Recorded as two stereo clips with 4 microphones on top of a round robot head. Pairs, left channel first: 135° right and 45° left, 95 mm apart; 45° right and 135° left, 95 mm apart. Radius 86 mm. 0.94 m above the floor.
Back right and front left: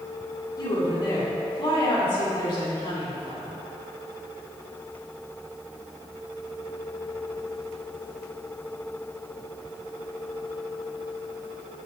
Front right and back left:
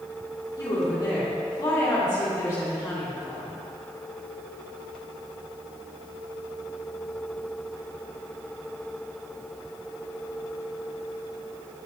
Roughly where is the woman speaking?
Right.